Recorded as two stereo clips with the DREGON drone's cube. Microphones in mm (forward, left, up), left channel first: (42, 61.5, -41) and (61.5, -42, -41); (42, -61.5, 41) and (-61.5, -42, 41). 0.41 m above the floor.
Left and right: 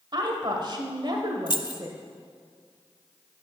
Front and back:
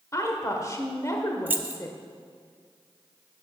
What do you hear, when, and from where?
0.1 s a woman speaking: 60° right, 1.3 m
1.5 s keys jangling: 105° left, 0.6 m